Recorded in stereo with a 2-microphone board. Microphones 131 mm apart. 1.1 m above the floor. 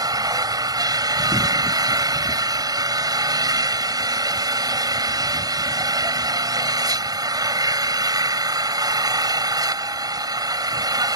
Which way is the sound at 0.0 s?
30° right (ahead or behind).